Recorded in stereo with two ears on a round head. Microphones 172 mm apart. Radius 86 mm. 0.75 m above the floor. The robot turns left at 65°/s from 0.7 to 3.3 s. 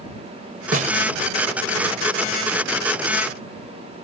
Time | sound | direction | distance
0.7 | a snare drum | 45° right (ahead or behind) | ?